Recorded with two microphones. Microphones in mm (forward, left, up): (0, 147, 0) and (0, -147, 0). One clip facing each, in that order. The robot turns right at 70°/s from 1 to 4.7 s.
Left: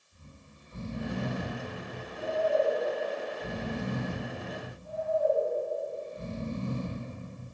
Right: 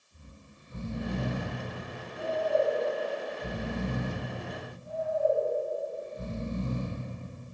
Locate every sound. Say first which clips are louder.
0.1 s snoring: right 1 dB; 155° right, 1.0 m; by 7.1 s 105° left, 1.0 m